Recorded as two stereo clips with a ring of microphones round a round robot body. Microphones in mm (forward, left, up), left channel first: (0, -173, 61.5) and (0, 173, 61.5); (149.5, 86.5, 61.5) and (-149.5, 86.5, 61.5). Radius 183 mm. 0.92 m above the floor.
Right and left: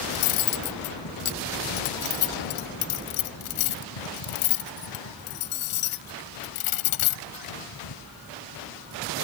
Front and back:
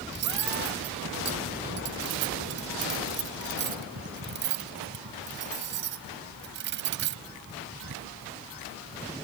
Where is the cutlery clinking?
120° right.